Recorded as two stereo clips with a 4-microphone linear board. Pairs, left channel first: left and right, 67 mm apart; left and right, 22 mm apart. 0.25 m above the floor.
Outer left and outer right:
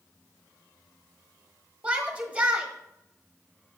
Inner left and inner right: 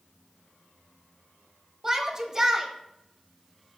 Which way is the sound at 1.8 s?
20° right (ahead or behind).